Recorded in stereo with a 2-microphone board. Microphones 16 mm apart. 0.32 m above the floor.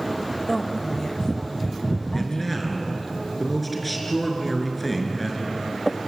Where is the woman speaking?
30° left (ahead or behind), 1.5 m; by 3.1 s 50° left (ahead or behind), 3.5 m.